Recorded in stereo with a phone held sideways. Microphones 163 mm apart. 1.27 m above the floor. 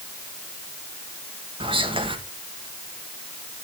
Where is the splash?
No splash in this recording.